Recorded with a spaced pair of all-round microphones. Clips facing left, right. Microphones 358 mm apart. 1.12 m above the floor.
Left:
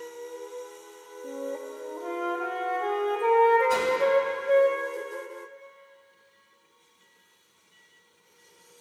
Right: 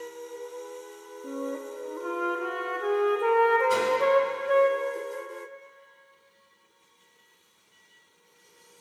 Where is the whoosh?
5° right (ahead or behind), 1.5 m.